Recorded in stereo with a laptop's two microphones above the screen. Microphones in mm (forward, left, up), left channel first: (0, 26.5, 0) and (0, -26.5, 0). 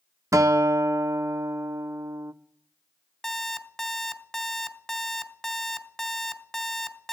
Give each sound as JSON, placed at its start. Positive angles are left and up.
{"t": 0.3, "sound": "a guitar", "side_deg": -75, "distance_m": 0.5}
{"t": 3.2, "sound": "an alarm clock", "side_deg": 10, "distance_m": 1.4}